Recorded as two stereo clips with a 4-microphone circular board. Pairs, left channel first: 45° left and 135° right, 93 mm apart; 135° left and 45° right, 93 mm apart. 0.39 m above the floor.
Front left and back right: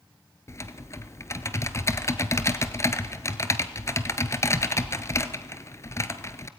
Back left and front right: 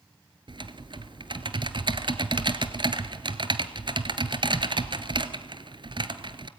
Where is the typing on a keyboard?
15° right, 1.2 m.